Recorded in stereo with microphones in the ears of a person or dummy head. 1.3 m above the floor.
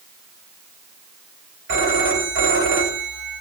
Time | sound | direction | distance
1.7 | a phone ringing | 75° right (ahead or behind) | 5 m